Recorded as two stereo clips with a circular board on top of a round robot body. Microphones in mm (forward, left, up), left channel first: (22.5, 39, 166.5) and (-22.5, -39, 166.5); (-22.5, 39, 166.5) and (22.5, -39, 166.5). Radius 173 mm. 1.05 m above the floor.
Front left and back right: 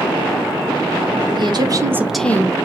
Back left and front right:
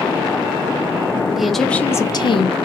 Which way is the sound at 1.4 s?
145° right.